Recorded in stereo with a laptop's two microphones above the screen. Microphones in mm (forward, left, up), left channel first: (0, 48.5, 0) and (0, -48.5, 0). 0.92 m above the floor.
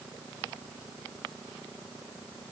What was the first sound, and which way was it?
Only background noise.